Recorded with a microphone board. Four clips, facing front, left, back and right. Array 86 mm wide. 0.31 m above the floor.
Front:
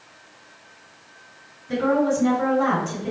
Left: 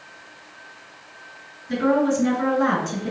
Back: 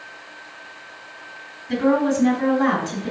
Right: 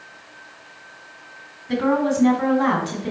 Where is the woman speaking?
95° right, 1.6 m.